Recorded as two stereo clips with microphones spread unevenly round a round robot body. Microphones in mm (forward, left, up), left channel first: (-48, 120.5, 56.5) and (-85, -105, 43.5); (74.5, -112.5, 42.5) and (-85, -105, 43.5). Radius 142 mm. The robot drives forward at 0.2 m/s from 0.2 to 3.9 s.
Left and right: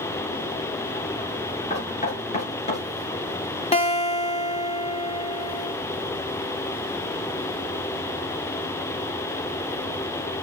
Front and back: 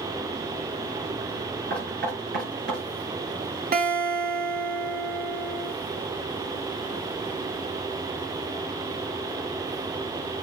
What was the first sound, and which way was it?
Knocking, 140° left.